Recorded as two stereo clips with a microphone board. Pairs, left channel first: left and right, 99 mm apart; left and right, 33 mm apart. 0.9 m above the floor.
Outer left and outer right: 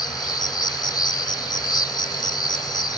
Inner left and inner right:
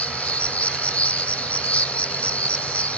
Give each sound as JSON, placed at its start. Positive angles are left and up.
{"t": 0.0, "sound": "an insect", "side_deg": 40, "distance_m": 0.8}